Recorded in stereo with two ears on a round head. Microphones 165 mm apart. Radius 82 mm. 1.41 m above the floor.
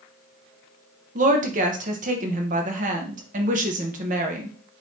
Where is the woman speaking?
45° right (ahead or behind), 1.0 m.